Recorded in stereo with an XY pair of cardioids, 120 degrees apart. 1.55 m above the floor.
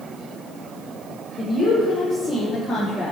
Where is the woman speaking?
45° left, 0.9 m; by 3.1 s 15° left, 1.6 m.